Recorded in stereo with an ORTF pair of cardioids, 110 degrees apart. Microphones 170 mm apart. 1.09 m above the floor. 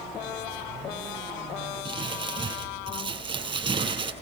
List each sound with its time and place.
1.9 s crumpling: 30° right, 6 m